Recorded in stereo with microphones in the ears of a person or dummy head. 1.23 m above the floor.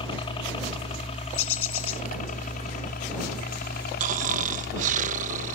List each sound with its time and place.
0.0 s a helicopter: 25° left (ahead or behind); by 5.6 s 55° left (ahead or behind)
1.3 s a bird: 85° left
4.0 s snoring: 45° right (ahead or behind)